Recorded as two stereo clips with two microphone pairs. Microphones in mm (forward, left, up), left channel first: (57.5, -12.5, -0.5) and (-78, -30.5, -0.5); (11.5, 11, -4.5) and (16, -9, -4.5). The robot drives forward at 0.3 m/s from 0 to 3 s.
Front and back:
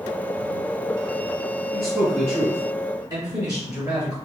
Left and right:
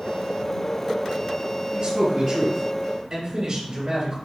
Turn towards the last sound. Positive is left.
turn(degrees=-125)